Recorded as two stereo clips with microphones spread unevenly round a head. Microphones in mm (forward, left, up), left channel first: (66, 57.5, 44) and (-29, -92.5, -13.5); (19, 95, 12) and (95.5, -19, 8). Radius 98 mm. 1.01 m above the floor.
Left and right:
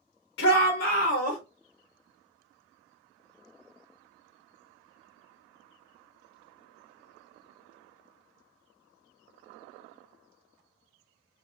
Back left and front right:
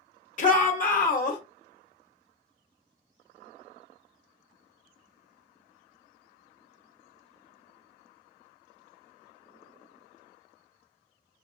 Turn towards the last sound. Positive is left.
turn(degrees=115)